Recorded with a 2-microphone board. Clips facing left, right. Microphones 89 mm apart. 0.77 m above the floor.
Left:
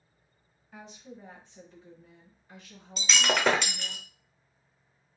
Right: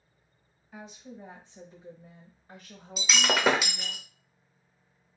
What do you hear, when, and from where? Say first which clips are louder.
0.7 s a woman speaking: right 2 dB; 5° left (ahead or behind), 1.0 m; by 4.0 s 50° right (ahead or behind), 1.4 m
3.0 s breaking glass: even; 5° right (ahead or behind), 0.6 m